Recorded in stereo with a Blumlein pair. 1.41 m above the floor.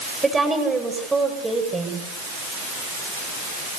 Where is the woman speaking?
10° right, 7.5 m.